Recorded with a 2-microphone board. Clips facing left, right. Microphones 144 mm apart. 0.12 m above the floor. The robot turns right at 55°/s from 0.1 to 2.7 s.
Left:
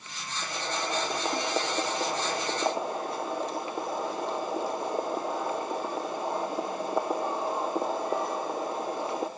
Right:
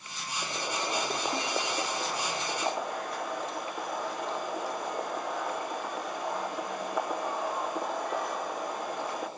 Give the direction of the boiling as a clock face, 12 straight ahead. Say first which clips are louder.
Left 1 dB; 1 o'clock.